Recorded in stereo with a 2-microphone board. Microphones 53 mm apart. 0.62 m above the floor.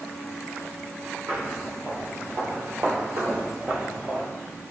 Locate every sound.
1.3 s footsteps: 60° right (ahead or behind), 2.0 m; by 4.3 s 25° right (ahead or behind), 0.9 m